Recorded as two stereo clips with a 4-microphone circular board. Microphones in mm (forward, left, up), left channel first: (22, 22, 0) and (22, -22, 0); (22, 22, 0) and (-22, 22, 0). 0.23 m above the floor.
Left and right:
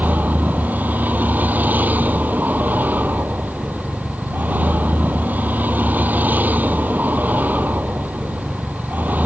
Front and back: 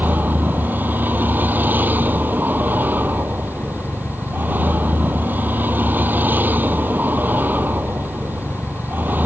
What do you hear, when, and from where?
0.0 s a vehicle: 135° right